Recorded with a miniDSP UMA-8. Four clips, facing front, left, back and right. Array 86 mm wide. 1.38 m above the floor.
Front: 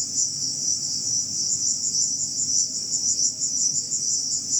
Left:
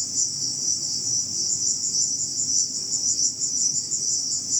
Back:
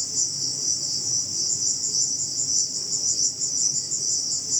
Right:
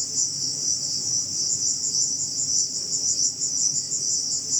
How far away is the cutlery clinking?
No cutlery clinking in this recording.